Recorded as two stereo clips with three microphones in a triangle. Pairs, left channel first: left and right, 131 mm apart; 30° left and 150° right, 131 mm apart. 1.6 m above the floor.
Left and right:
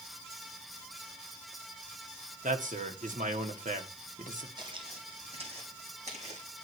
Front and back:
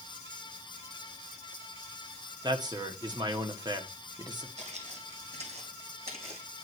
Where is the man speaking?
90° right, 1.5 m.